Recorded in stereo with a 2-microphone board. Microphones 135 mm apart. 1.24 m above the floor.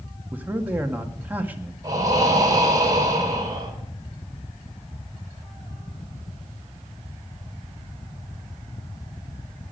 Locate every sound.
0.3 s a man speaking: 15° right (ahead or behind), 1.8 m
1.8 s breathing: 25° right (ahead or behind), 3.5 m